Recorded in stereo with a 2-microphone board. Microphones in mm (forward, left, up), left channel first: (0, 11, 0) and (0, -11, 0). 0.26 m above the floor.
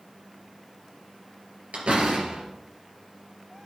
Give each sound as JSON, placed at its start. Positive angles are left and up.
{"t": 1.7, "sound": "a door slam", "side_deg": -70, "distance_m": 3.5}